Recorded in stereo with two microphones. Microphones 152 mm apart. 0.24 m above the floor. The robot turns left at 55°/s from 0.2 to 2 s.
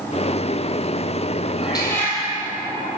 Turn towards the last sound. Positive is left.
turn(degrees=15)  # may be behind; listen again after turning